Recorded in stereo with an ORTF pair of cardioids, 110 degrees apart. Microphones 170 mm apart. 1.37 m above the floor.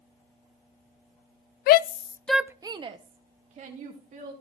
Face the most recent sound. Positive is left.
turn(degrees=-50)